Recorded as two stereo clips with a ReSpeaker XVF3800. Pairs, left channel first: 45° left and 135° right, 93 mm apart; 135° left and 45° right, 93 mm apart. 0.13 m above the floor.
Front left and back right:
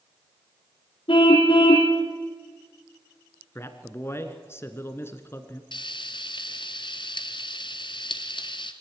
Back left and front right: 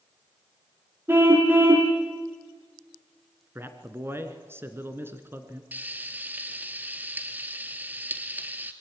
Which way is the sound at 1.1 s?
20° left.